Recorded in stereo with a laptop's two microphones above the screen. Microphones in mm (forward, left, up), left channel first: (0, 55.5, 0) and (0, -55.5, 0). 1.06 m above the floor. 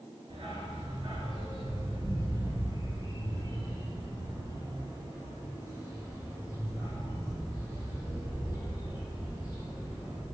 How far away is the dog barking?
About 3.5 m.